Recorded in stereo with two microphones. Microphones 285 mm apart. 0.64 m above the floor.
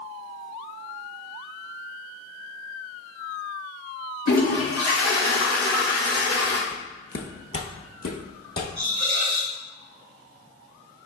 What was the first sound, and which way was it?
A toilet flushing, 60° left (ahead or behind).